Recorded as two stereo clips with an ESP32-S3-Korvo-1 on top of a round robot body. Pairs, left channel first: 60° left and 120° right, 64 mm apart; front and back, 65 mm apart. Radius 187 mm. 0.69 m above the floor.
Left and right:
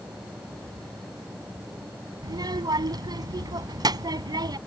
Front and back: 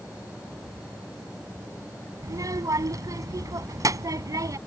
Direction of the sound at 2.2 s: 140° right.